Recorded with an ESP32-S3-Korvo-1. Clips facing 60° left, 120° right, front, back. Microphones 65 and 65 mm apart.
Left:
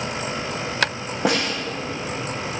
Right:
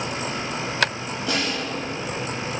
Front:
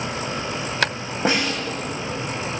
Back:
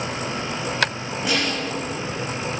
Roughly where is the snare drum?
Ahead left.